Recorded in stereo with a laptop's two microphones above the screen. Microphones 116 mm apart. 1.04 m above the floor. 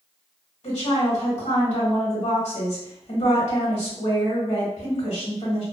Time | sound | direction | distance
0.6 | a woman speaking | 75° left (ahead or behind) | 1.4 m